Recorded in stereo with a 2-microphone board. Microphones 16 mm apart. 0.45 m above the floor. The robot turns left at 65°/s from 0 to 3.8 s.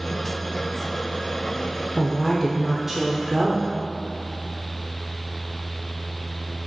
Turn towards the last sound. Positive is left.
turn(degrees=-80)